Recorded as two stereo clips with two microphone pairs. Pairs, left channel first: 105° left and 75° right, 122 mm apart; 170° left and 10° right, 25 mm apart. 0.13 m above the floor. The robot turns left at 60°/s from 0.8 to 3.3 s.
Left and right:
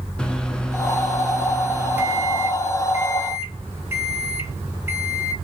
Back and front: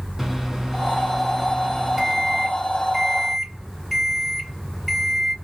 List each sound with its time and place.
0.2 s a microwave: 40° left, 0.8 m; by 5.3 s 110° right, 0.8 m